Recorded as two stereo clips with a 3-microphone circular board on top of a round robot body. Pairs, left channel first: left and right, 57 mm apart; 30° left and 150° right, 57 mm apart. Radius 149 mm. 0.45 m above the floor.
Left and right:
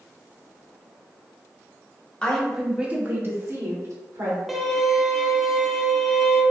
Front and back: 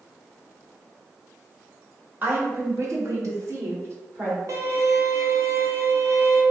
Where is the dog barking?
I don't hear a dog barking.